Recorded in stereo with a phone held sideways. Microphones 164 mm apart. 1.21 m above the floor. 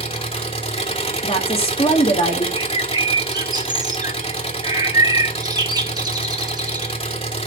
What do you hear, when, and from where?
0.0 s an engine running: 35° left (ahead or behind), 2.5 m
1.2 s a woman speaking: 35° left (ahead or behind), 3 m
2.5 s a bird: 25° right (ahead or behind), 1.3 m